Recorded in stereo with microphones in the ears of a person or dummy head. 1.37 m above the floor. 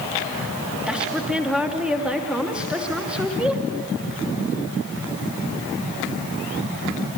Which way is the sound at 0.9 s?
Centre (ahead or behind).